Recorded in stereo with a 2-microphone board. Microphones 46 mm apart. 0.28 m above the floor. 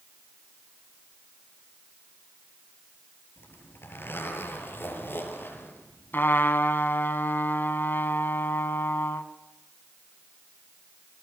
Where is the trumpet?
50° left (ahead or behind), 1.9 m.